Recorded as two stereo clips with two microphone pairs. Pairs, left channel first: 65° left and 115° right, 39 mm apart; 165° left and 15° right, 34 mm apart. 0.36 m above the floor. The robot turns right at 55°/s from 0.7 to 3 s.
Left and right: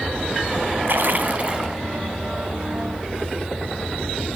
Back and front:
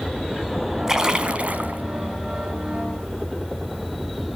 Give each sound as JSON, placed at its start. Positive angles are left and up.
{"t": 0.9, "sound": "a splash", "azimuth_deg": -90, "distance_m": 1.6}